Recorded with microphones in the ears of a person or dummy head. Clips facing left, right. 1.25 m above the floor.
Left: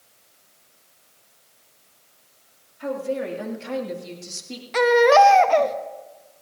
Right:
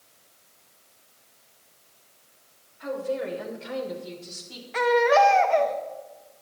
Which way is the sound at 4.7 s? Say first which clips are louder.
Left 5 dB; 60° left (ahead or behind).